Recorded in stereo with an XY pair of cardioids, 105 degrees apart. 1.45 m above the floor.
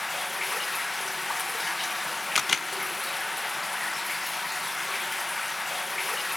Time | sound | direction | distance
0.0 | running water | 15° left | 1.1 m
2.4 | a camera shutter | 25° left | 1.2 m